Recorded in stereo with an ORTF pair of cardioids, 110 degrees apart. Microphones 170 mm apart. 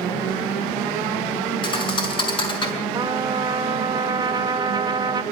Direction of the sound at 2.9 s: 25° right.